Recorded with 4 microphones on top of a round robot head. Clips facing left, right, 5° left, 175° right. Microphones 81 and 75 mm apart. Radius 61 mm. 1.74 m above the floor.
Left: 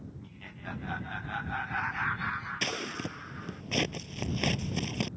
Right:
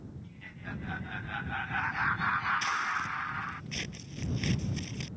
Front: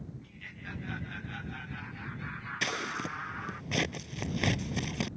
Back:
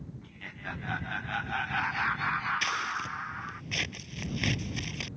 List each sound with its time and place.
0.2 s laughter: 145° left; by 3.6 s 85° right
2.6 s scissors: 60° left